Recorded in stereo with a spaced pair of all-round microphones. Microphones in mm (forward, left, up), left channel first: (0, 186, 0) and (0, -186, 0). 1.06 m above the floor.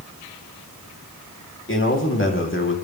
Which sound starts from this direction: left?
A man speaking, at 1.7 s.